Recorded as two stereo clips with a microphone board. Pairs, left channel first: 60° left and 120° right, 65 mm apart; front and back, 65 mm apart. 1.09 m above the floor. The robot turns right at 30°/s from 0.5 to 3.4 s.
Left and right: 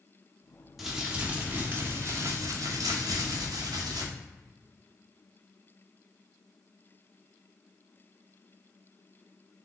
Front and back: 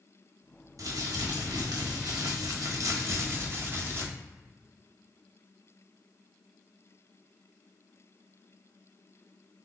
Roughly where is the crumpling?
Behind left.